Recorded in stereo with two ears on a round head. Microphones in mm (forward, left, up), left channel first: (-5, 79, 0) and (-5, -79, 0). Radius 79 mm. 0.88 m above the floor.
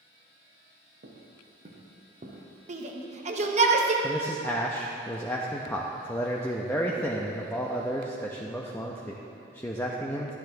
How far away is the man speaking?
About 0.7 m.